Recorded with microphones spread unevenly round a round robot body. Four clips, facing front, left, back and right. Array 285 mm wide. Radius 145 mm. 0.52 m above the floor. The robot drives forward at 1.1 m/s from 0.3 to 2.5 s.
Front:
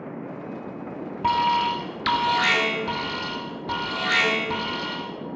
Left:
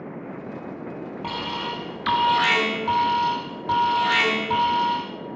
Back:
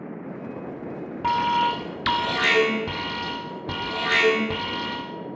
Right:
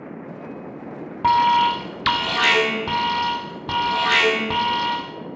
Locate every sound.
1.2 s an alarm: 75° right, 1.6 m; by 5.1 s 145° right, 1.9 m